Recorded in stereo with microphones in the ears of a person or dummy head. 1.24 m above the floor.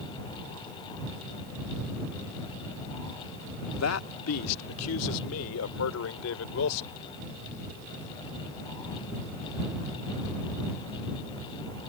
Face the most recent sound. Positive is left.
turn(degrees=75)  # may be behind; listen again after turning